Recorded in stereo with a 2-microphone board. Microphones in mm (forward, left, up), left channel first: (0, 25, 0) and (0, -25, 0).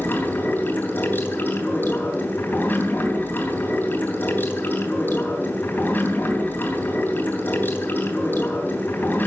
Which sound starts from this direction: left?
Running water, at 0.0 s.